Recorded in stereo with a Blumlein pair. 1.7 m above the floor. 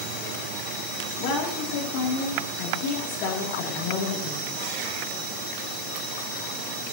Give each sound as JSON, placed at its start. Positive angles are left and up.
{"t": 1.2, "sound": "a woman speaking", "azimuth_deg": 45, "distance_m": 3.0}